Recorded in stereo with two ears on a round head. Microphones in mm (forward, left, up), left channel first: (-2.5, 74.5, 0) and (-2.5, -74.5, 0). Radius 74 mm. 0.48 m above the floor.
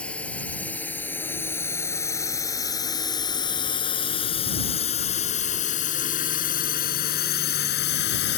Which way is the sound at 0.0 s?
5° left (ahead or behind).